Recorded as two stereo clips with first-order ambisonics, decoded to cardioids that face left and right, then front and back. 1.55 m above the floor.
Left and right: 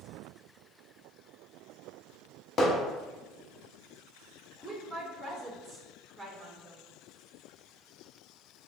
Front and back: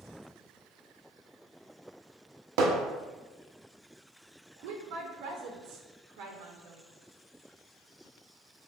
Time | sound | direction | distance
2.6 | hammering | 160° left | 0.6 m
4.6 | a woman speaking | straight behind | 0.6 m